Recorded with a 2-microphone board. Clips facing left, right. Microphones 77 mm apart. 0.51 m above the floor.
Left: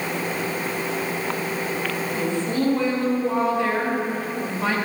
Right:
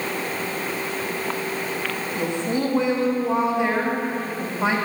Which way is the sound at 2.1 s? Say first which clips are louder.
Even; 20° right (ahead or behind).